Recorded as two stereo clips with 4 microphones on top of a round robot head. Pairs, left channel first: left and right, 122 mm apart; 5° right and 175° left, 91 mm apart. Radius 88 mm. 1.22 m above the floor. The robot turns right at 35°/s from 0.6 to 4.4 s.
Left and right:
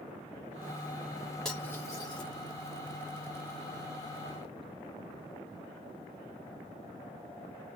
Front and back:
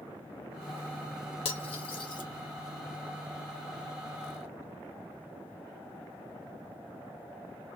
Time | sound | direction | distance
1.4 | cutlery clinking | 5° left | 1.5 m